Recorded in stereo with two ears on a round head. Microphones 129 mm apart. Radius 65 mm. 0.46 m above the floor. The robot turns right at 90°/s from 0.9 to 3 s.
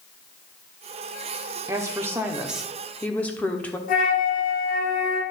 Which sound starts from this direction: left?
A flute, at 3.9 s.